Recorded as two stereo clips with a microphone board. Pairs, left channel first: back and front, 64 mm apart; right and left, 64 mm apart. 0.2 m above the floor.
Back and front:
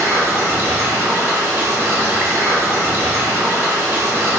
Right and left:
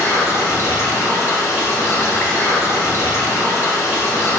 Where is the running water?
50° right, 1.1 m.